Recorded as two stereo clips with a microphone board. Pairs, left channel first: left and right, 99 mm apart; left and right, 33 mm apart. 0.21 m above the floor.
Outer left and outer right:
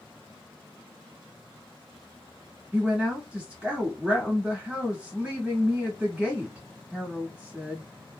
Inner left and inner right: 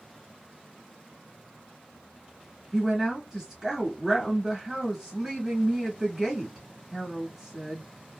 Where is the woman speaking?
15° right (ahead or behind), 1.2 m.